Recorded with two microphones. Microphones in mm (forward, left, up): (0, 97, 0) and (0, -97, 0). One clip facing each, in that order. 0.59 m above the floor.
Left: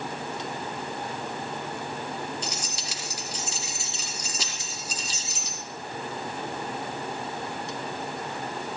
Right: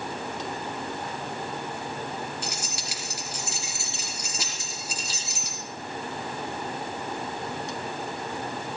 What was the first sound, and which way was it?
Keys jangling, 65° right (ahead or behind).